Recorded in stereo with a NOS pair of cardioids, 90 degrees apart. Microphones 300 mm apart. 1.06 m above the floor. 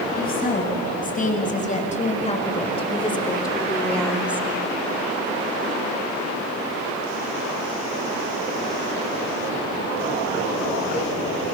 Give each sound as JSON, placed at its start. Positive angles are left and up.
{"t": 0.1, "sound": "a woman speaking", "azimuth_deg": 30, "distance_m": 7.5}